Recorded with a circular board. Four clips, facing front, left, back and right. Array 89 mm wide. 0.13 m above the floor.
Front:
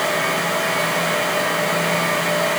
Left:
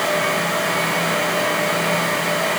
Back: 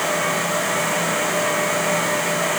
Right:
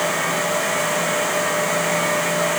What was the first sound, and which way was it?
Only background noise.